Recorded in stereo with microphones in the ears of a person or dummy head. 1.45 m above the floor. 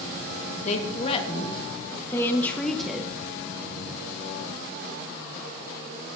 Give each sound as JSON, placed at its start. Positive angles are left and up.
{"t": 0.7, "sound": "a woman speaking", "side_deg": 40, "distance_m": 1.7}